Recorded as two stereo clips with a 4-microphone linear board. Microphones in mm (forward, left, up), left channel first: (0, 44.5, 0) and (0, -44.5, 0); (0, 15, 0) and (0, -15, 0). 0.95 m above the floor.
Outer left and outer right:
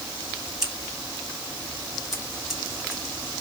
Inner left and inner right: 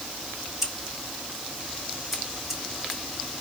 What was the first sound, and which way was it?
Scissors, 5° right (ahead or behind).